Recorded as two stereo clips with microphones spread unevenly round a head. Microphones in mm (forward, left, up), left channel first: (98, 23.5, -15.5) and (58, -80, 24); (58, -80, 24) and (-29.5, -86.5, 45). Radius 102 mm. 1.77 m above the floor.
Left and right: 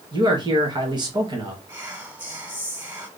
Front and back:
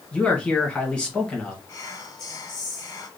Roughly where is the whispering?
Ahead right.